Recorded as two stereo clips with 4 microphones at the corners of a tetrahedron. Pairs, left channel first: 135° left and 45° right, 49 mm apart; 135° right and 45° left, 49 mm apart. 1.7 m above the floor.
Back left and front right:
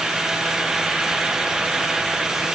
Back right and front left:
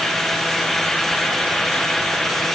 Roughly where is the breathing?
I don't hear breathing.